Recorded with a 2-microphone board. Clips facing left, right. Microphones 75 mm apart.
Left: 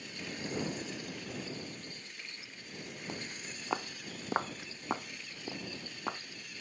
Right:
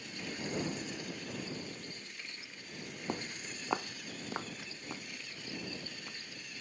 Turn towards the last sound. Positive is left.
turn(degrees=75)  # may be behind; listen again after turning